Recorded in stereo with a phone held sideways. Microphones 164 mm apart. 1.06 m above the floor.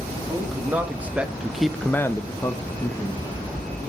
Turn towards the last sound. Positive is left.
turn(degrees=20)  # may be behind; listen again after turning